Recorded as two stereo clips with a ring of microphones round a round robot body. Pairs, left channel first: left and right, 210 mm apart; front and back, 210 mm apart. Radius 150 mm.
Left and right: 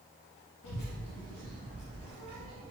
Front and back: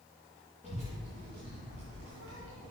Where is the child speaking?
120° left, 2.5 m; by 2.7 s 160° right, 2 m.